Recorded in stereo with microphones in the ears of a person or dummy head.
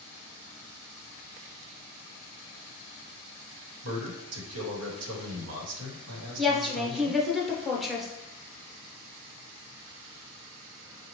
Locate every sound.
3.8 s a man speaking: 80° right, 1.1 m
6.4 s a woman speaking: 5° left (ahead or behind), 0.8 m